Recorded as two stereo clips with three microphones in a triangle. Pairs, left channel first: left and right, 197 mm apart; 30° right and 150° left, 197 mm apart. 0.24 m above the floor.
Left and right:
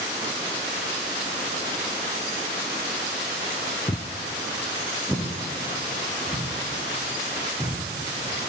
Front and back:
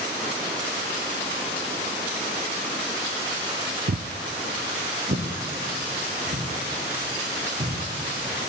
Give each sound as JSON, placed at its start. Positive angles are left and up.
{"t": 3.9, "sound": "footsteps", "azimuth_deg": 150, "distance_m": 0.5}